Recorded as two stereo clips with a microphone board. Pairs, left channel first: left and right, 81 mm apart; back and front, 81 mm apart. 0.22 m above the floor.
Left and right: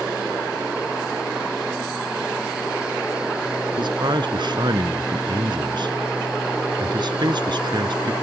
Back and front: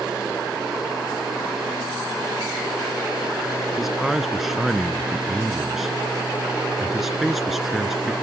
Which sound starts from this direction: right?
A man speaking, at 3.8 s.